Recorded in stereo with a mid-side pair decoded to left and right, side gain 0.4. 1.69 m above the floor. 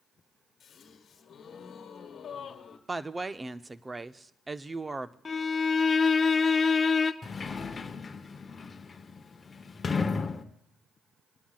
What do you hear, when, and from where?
0.6 s a gasp: 60° left, 1.5 m
2.9 s a woman speaking: 20° right, 0.7 m
5.2 s a violin: 40° left, 0.7 m
7.2 s a sliding door: 40° left, 1.0 m